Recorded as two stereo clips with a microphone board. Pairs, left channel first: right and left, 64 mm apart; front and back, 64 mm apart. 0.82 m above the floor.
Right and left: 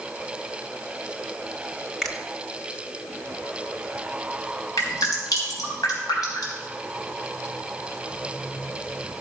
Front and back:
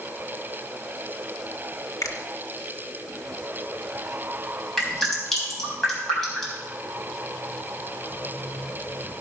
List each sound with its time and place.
2.0 s a finger snap: 5° right, 1.3 m
4.8 s dripping: 80° right, 3.5 m